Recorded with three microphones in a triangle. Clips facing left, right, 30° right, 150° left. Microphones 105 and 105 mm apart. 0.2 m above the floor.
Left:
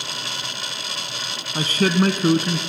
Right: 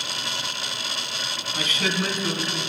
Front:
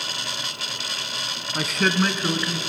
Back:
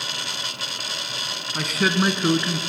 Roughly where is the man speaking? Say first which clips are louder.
Left 8 dB, even; ahead left.